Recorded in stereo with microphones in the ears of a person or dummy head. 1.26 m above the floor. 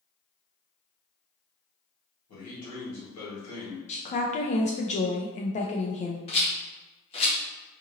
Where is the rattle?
30° left (ahead or behind), 0.6 m.